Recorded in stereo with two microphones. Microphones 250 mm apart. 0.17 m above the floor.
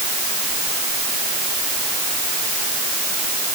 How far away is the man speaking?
No man speaking in this recording.